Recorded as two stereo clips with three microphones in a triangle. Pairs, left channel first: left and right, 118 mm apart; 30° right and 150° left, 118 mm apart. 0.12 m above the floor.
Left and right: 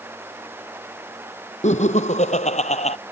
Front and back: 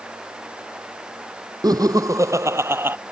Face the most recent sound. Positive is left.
turn(degrees=80)